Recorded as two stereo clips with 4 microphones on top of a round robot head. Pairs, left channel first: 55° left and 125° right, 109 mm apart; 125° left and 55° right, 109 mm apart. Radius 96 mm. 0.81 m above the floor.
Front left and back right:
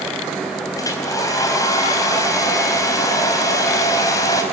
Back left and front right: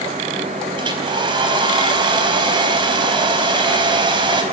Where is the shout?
I don't hear a shout.